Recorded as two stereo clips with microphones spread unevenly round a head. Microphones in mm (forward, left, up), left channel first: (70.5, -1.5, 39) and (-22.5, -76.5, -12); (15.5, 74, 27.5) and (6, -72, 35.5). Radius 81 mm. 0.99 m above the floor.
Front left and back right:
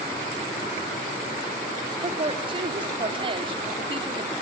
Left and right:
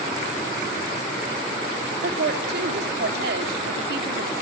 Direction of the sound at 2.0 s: 100° right.